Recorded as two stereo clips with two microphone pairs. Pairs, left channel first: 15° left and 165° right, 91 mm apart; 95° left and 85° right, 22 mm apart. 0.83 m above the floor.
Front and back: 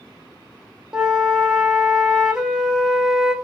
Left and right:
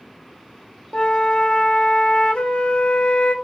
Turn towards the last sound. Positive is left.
turn(degrees=115)